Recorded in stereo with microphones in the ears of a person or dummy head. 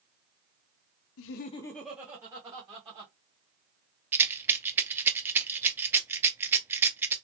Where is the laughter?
75° left (ahead or behind), 0.5 m; by 3.1 s 25° right (ahead or behind), 2 m.